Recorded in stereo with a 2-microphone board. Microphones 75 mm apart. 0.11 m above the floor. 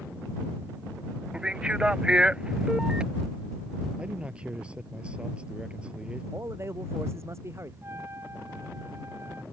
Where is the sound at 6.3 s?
35° right (ahead or behind).